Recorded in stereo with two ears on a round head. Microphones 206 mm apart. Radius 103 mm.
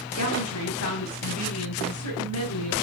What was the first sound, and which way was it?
A woman speaking, 75° left (ahead or behind).